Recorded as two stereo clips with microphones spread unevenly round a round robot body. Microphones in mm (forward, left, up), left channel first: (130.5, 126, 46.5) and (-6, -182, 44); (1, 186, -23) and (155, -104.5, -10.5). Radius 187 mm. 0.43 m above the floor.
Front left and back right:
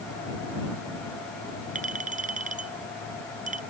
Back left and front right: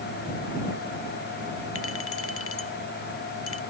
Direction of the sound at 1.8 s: 175° left.